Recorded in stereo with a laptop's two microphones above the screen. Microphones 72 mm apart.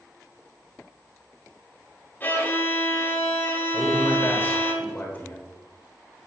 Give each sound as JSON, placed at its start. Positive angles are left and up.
{"t": 2.2, "sound": "a violin", "side_deg": 30, "distance_m": 3.0}
{"t": 3.7, "sound": "a man speaking", "side_deg": 30, "distance_m": 1.7}